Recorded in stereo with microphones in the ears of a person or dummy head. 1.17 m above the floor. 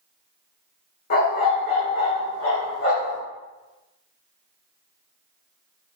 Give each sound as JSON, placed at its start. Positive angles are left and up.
{"t": 1.1, "sound": "a dog barking", "side_deg": 60, "distance_m": 2.5}